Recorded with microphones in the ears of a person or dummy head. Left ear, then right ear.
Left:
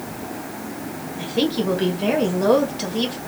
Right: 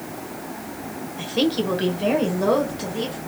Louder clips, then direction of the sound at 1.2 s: Even; 20° right (ahead or behind).